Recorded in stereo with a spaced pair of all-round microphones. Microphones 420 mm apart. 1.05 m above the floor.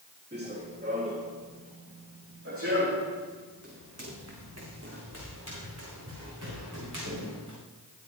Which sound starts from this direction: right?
Running footsteps, at 0.3 s.